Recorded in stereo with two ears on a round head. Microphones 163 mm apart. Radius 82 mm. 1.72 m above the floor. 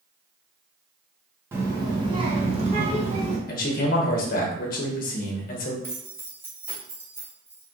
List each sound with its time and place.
1.5 s a child speaking: 15° right (ahead or behind), 1.0 m; by 3.4 s 40° right (ahead or behind), 1.7 m
3.5 s a man speaking: 50° left (ahead or behind), 1.0 m
5.8 s keys jangling: 15° right (ahead or behind), 1.4 m